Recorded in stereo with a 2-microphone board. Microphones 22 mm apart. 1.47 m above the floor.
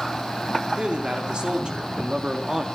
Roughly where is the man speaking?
Right.